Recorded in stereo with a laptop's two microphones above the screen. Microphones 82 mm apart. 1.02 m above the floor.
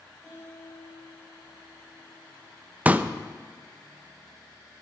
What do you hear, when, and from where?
0.2 s a guitar: 35° left (ahead or behind), 5.5 m
2.9 s a pop: 20° right (ahead or behind), 0.7 m